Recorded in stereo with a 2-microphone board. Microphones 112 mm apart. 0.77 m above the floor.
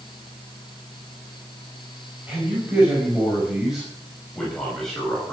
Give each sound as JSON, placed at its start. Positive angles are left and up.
{"t": 2.3, "sound": "a man speaking", "side_deg": -15, "distance_m": 5.0}